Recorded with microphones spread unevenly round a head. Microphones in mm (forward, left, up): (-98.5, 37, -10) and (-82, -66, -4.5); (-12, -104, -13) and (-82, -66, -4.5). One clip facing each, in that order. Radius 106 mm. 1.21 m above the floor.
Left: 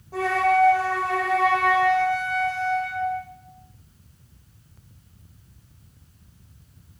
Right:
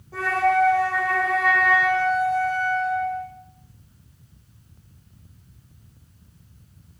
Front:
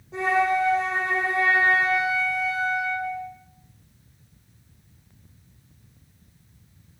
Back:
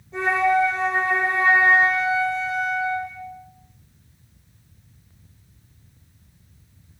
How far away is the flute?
About 1.0 m.